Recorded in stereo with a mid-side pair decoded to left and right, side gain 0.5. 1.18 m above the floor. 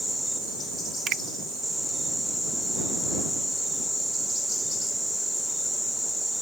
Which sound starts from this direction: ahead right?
A finger snap, at 1.1 s.